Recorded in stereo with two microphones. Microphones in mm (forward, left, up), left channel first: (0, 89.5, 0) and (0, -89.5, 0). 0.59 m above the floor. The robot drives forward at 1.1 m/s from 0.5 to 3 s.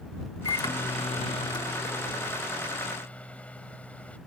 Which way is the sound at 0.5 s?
20° left (ahead or behind).